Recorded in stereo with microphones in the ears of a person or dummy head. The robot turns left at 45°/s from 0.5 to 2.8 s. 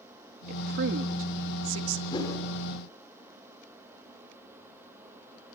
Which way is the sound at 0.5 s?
50° right (ahead or behind).